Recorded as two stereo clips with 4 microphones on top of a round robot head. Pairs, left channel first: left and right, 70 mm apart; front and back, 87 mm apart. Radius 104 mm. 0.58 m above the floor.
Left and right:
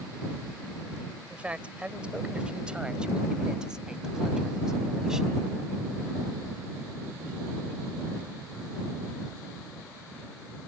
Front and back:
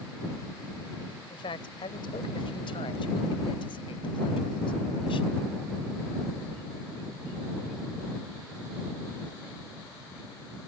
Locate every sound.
1.3 s a man speaking: 20° right; by 5.4 s 5° right